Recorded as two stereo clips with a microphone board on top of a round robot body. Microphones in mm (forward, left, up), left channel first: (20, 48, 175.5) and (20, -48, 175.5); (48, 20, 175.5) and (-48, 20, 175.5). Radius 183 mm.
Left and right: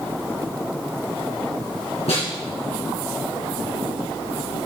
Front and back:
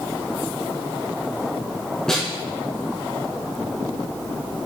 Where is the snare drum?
85° left, 3 m.